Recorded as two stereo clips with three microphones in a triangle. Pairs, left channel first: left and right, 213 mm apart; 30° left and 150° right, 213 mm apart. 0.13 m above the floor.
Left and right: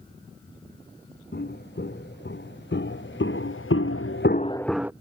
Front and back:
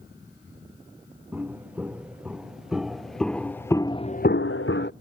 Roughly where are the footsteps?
Behind left.